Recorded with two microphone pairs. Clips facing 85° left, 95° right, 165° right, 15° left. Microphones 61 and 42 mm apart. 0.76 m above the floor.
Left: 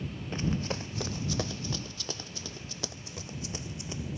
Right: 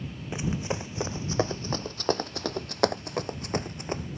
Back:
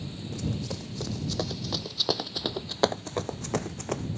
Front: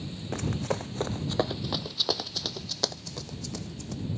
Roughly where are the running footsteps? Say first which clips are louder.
Right 2 dB, front 4 dB; ahead.